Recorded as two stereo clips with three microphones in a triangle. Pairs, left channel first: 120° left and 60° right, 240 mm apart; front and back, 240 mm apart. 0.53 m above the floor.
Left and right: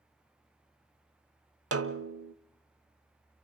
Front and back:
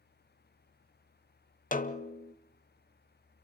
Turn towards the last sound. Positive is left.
turn(degrees=-50)